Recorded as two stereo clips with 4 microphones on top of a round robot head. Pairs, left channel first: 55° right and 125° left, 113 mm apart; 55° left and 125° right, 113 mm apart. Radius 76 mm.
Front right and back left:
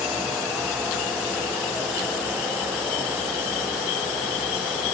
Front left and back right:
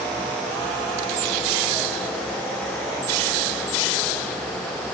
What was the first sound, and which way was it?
Only background noise.